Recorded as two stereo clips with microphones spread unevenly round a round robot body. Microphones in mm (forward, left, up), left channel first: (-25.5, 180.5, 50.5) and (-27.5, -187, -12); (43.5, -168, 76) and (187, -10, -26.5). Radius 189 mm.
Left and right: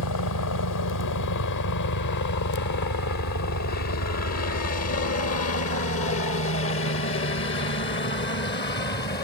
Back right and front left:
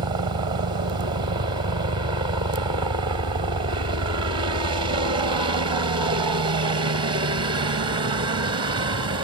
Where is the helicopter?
65° left; by 9.2 s 20° left.